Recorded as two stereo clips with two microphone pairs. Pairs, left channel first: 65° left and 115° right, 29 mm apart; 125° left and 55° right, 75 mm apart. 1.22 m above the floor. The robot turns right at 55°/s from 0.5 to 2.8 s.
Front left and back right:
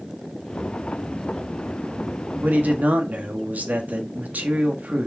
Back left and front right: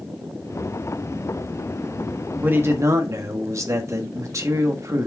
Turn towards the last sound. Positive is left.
turn(degrees=-105)